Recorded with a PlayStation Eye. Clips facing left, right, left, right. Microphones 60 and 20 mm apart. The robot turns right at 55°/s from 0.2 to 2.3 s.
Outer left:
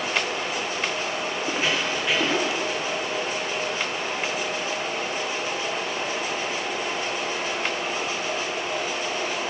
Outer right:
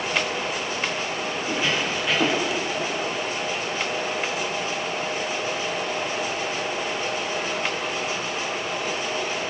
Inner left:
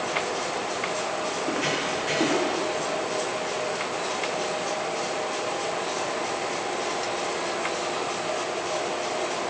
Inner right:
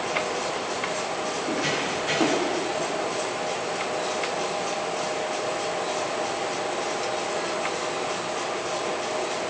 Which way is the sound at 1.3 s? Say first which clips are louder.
Outer right 1 dB, inner right 1 dB; 40° left (ahead or behind).